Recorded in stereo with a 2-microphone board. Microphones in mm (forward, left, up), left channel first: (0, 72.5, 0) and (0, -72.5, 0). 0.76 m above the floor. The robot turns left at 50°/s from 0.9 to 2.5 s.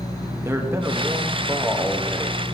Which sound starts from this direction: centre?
A man speaking, at 0.5 s.